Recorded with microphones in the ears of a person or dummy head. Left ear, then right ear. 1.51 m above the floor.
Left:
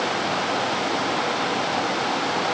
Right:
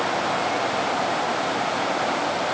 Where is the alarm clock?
No alarm clock in this recording.